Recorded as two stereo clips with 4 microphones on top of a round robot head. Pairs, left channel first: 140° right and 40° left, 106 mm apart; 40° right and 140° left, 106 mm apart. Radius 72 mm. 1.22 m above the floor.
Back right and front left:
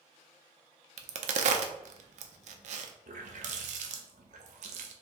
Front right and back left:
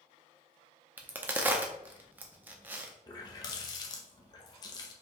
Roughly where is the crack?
Ahead left.